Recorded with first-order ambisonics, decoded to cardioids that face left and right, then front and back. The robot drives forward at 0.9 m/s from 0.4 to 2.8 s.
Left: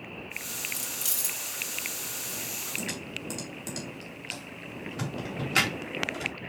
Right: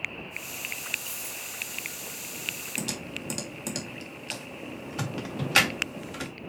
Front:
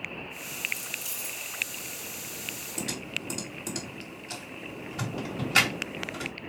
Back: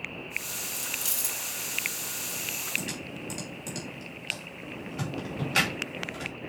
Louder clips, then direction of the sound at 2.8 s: Right 1 dB, front 3 dB; 80° right.